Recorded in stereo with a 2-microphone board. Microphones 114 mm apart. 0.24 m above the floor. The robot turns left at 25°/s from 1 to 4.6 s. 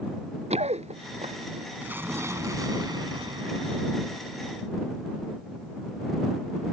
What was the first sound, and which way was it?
Running footsteps, 70° right (ahead or behind).